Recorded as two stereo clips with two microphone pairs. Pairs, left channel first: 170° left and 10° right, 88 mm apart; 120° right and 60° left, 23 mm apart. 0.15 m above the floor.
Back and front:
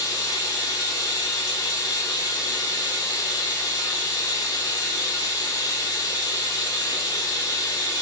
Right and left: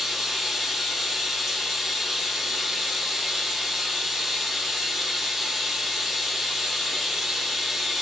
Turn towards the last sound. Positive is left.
turn(degrees=140)